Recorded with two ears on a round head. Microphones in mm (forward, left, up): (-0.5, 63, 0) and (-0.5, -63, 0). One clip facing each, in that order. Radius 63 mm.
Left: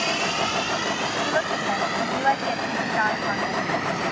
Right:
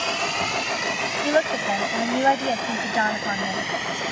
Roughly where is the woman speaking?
Right.